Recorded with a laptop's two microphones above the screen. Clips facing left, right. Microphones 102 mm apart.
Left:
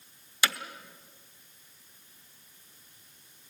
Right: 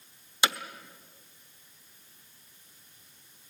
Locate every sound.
0.4 s hammering: 25° right (ahead or behind), 0.7 m